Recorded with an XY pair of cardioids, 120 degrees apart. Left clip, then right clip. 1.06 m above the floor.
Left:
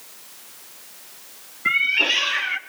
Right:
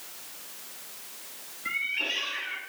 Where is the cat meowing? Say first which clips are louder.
Left 11 dB; 65° left, 0.8 m.